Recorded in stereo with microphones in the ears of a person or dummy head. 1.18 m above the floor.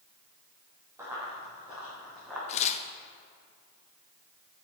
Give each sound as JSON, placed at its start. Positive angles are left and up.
{"t": 1.0, "sound": "running footsteps", "side_deg": -10, "distance_m": 2.0}
{"t": 2.5, "sound": "tearing paper", "side_deg": 35, "distance_m": 0.6}